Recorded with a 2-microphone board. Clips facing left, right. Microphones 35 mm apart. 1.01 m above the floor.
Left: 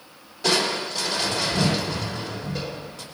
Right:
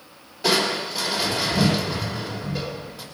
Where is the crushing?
10° right (ahead or behind), 3 m.